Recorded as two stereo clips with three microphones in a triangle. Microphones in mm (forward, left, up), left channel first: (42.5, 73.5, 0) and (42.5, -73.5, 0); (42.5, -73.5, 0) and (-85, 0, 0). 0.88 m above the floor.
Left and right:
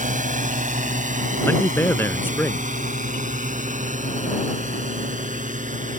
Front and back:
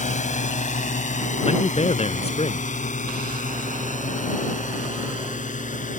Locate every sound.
0.0 s a drone: 60° right
1.4 s a man speaking: 15° left